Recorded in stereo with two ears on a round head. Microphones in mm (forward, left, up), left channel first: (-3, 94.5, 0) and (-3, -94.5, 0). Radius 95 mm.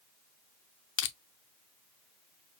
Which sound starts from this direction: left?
Crushing, at 1.0 s.